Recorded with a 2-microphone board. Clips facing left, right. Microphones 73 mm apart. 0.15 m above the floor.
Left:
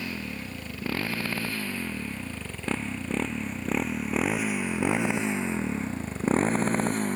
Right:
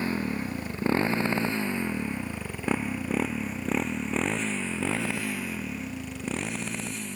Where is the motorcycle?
35° right (ahead or behind); by 7.2 s 50° left (ahead or behind).